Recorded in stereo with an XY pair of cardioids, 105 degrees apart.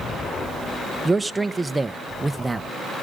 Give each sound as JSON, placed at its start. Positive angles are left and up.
{"t": 1.1, "sound": "a man speaking", "azimuth_deg": -10, "distance_m": 0.9}